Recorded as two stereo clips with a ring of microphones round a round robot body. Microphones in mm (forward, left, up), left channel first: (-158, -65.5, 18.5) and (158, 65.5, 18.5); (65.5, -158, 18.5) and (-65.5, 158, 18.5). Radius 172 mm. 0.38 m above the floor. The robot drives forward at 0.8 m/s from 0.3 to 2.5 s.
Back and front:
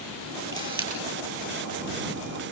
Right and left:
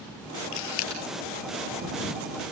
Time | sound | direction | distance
0.5 | a camera shutter | 55° right | 9 m